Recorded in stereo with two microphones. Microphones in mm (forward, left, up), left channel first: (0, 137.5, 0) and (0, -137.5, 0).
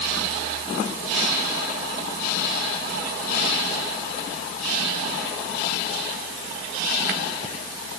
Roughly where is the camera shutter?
No camera shutter in this recording.